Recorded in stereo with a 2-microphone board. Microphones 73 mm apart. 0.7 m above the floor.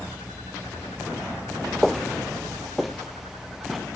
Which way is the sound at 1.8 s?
5° left (ahead or behind).